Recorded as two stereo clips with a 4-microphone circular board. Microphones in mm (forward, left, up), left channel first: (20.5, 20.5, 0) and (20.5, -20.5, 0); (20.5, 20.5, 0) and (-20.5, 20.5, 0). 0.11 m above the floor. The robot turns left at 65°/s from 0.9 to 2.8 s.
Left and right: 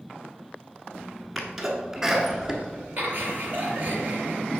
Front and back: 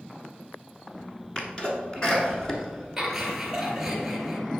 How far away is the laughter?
About 1.9 m.